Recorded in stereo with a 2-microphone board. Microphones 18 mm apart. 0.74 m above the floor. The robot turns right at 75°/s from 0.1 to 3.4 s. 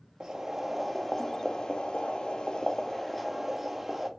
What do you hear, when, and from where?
0.2 s boiling: 55° right, 0.6 m; by 4.1 s 175° right, 0.6 m